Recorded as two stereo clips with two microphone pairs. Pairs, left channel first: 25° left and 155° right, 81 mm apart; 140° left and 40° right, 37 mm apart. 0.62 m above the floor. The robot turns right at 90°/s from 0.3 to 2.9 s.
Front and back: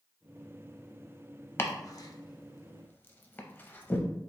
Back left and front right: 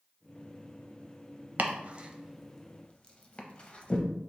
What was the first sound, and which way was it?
Chopping, 25° right.